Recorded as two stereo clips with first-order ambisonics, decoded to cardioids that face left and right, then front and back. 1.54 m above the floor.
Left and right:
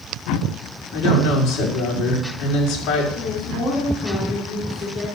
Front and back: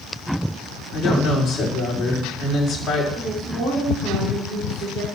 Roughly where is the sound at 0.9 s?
Left.